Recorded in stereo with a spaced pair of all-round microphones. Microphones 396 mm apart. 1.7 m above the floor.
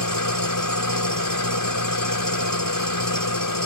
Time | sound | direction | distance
0.0 | an engine running | 55° left (ahead or behind) | ?